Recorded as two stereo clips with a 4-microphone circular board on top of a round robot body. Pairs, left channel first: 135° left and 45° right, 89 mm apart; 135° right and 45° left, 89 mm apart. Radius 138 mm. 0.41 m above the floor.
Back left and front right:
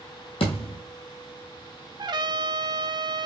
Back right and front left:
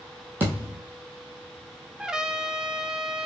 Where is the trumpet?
35° right, 0.6 m.